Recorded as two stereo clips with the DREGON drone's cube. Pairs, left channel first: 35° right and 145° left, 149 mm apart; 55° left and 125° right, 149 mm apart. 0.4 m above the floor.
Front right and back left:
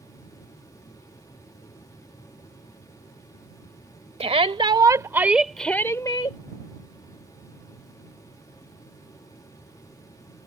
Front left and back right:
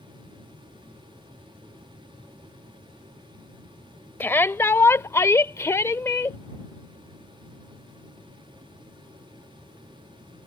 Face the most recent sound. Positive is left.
turn(degrees=-10)